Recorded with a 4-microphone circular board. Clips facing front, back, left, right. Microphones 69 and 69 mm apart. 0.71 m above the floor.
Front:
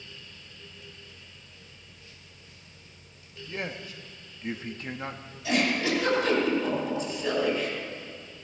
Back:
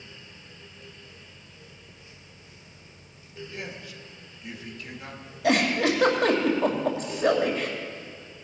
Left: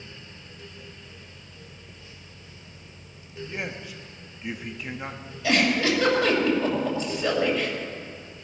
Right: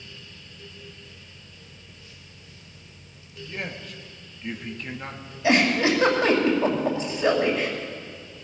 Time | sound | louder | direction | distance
3.5 | a man speaking | front 5 dB, even | 15° left | 1.0 m
5.4 | a giggle | back 4 dB, right 2 dB | 160° right | 2.5 m